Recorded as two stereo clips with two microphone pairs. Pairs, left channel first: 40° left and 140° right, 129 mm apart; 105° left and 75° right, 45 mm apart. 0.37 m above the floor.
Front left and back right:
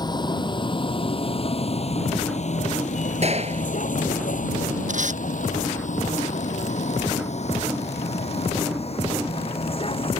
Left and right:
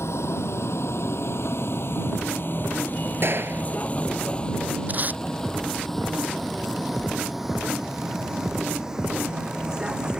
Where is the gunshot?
105° right.